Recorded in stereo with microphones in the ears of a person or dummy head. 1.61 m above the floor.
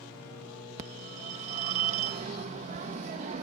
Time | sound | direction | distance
0.8 | a phone ringing | 45° right (ahead or behind) | ?